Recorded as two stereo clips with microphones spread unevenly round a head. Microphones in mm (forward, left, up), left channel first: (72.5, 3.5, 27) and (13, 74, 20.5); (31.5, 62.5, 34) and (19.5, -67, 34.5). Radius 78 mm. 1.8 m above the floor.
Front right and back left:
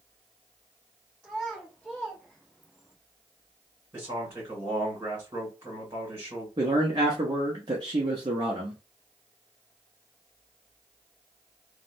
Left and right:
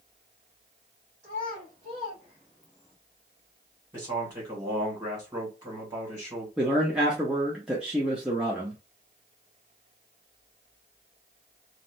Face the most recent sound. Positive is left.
turn(degrees=-175)